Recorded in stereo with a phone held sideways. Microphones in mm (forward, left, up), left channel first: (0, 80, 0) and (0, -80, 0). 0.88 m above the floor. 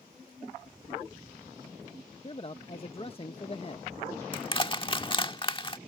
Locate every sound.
2.2 s a man speaking: 35° left (ahead or behind)
4.3 s crushing: 30° left (ahead or behind)